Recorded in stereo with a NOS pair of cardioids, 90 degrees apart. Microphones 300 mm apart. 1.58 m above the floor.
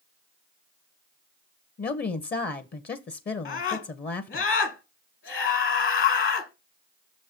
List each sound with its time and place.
1.8 s a woman speaking: 30° left, 0.9 m
3.5 s a scream: 45° left, 1.7 m